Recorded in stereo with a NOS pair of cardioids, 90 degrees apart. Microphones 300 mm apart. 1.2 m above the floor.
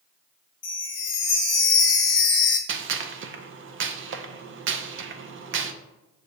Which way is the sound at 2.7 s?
45° right.